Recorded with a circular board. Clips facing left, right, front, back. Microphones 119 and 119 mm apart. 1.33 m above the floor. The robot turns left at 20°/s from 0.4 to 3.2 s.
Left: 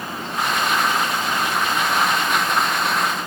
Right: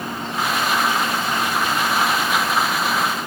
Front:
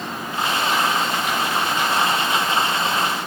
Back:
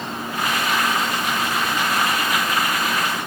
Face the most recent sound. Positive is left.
No sound to turn to.